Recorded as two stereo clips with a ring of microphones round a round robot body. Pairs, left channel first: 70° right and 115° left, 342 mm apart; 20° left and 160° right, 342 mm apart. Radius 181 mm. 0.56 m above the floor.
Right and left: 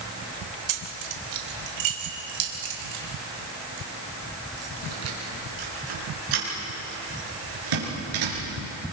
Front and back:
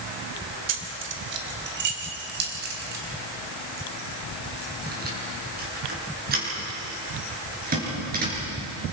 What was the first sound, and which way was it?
Keys jangling, 150° left.